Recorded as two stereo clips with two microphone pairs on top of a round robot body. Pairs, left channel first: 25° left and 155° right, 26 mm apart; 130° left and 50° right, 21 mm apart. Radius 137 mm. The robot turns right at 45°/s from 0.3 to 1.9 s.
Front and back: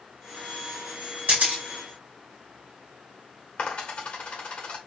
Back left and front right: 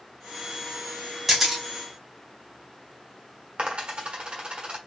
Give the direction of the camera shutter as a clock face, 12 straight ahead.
4 o'clock.